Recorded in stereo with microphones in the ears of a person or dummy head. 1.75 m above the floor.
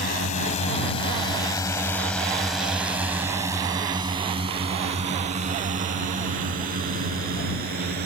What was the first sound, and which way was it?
A drone, 50° left (ahead or behind).